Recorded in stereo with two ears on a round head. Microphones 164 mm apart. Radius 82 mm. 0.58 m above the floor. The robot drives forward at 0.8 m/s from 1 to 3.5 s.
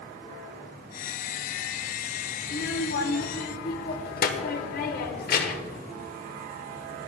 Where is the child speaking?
65° left (ahead or behind), 1.2 m; by 5.8 s 55° left (ahead or behind), 1.3 m.